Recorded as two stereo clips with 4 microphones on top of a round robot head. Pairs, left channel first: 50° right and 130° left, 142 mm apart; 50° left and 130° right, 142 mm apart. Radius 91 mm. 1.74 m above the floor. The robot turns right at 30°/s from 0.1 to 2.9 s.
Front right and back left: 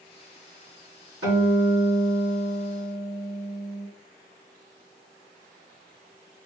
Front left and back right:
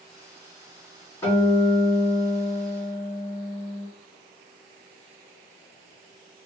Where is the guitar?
120° left, 1.8 m; by 3.9 s 170° left, 1.8 m.